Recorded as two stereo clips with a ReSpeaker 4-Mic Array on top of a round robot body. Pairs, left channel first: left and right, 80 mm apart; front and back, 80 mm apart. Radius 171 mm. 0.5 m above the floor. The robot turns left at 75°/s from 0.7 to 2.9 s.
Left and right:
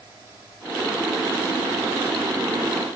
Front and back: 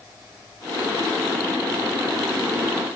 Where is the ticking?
No ticking in this recording.